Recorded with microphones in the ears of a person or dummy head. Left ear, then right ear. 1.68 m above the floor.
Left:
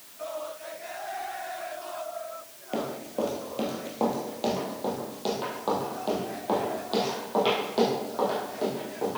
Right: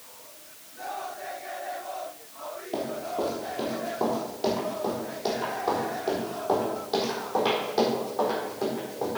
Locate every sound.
2.7 s running footsteps: 25° left (ahead or behind), 2.5 m; by 9.2 s 10° left (ahead or behind), 5.5 m